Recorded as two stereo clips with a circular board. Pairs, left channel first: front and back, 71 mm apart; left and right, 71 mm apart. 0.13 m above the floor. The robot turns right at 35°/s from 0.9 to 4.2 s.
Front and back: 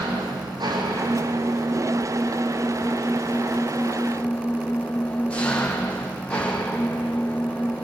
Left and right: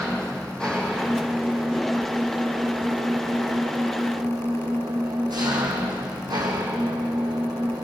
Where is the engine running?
170° left, 5 m; by 7.8 s 75° right, 5 m.